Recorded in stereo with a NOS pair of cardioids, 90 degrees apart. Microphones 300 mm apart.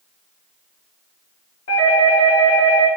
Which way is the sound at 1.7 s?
50° left.